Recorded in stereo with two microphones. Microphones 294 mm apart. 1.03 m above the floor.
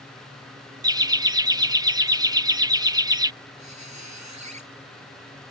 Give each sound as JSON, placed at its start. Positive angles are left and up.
{"t": 0.8, "sound": "laughter", "side_deg": -15}
{"t": 3.6, "sound": "a squeak", "side_deg": -65}